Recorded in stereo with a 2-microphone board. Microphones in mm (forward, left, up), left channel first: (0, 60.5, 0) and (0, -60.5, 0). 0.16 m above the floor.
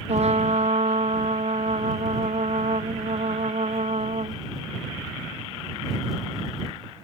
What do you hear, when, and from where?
0.1 s a trumpet: 65° right (ahead or behind)